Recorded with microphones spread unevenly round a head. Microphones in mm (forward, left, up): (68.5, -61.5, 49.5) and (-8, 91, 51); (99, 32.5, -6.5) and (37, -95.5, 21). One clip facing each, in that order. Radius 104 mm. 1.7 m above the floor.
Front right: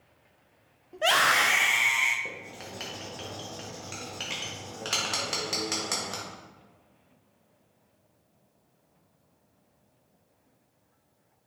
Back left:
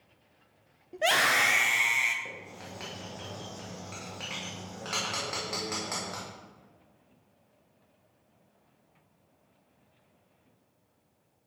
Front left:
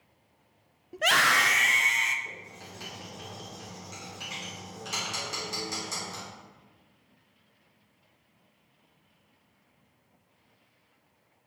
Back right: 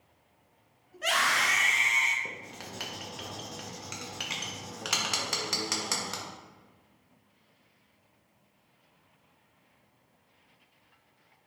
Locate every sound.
0.9 s a scream: 40° left, 0.8 m; by 2.1 s 30° left, 1.4 m
2.2 s writing: 130° right, 1.5 m